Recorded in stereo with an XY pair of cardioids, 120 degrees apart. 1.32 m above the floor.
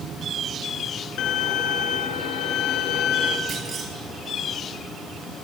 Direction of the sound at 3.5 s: 40° right.